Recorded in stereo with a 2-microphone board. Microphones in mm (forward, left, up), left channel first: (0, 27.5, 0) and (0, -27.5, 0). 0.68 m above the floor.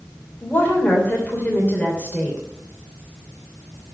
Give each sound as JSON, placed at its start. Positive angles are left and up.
{"t": 0.4, "sound": "a woman speaking", "side_deg": 35, "distance_m": 3.0}